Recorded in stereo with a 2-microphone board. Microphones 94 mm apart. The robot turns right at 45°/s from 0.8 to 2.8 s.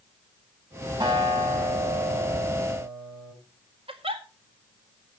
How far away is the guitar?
About 7.5 m.